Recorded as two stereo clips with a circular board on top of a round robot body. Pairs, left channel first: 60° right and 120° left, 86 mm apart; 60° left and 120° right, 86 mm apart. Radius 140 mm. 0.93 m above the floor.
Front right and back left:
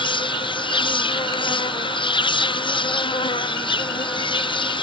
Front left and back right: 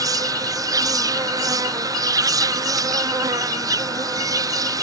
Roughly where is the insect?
Right.